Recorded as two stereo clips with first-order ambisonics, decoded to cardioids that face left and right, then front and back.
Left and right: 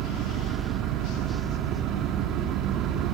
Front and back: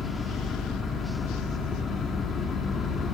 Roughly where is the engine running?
Ahead right.